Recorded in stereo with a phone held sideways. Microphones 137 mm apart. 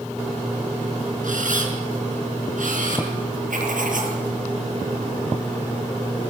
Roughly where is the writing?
Right.